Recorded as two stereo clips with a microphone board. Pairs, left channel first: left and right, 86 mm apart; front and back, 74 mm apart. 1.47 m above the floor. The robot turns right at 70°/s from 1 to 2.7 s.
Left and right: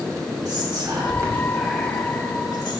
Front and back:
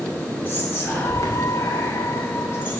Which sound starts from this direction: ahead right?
Whispering, at 0.5 s.